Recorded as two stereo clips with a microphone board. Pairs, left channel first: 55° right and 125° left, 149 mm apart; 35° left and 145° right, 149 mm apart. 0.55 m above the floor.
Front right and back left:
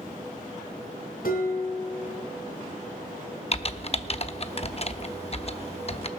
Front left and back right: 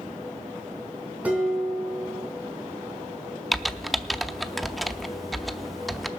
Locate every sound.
1.2 s dishes clattering: 65° right, 3 m
3.5 s typing on a keyboard: 55° right, 0.6 m